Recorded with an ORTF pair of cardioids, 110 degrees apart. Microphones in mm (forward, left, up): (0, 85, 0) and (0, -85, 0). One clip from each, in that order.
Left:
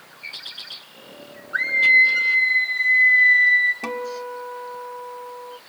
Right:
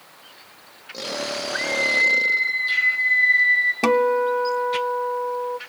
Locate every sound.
1.5 s a scream: 35° left, 5.5 m; by 3.7 s 15° left, 8 m
3.8 s a guitar: 45° right, 0.7 m